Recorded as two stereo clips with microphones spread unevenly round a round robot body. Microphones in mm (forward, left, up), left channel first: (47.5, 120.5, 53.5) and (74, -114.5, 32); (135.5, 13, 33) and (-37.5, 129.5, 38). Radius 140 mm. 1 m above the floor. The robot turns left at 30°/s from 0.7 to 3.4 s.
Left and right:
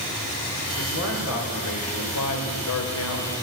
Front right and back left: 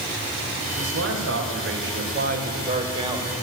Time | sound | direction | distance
0.8 | a man speaking | 150° left | 5 m